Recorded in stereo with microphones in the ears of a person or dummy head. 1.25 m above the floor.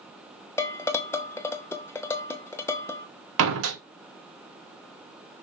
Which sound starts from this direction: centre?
Dishes clattering, at 0.6 s.